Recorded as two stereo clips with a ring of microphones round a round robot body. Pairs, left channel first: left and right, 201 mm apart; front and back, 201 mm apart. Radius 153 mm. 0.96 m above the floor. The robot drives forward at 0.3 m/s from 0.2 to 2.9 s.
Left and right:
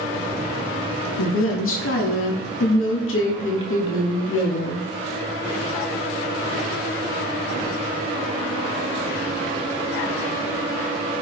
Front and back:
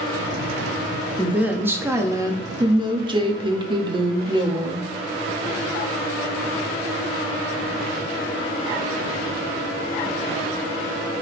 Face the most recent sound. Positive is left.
turn(degrees=115)